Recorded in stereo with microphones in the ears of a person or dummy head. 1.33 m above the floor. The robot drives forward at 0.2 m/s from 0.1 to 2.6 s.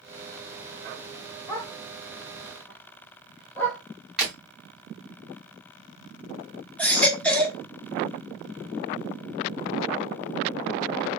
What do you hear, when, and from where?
1.5 s a dog barking: 20° left (ahead or behind), 1.9 m; by 3.8 s 15° left (ahead or behind), 2 m
4.2 s breaking glass: centre (ahead or behind), 3.5 m
6.8 s a baby crying: 15° left (ahead or behind), 0.8 m